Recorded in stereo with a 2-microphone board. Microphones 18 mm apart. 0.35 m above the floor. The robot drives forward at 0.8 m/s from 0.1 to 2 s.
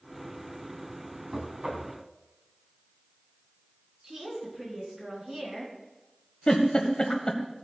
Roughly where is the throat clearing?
No throat clearing in this recording.